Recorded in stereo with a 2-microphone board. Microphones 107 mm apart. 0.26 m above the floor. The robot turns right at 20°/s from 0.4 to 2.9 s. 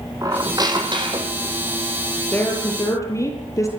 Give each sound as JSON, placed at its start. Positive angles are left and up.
{"t": 0.2, "sound": "a squeak", "side_deg": -35, "distance_m": 3.5}
{"t": 2.3, "sound": "a woman speaking", "side_deg": 15, "distance_m": 7.0}